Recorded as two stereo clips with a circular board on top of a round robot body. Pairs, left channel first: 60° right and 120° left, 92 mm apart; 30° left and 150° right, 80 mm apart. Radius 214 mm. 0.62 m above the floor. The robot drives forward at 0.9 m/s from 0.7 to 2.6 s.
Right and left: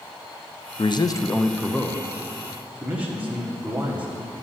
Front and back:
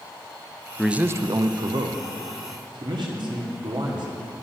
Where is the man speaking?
60° right, 0.7 m; by 4.1 s 165° right, 1.5 m.